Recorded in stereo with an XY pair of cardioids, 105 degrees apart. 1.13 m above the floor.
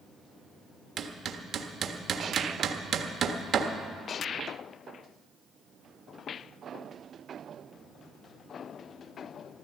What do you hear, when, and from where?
1.0 s hammering: 55° right, 1.3 m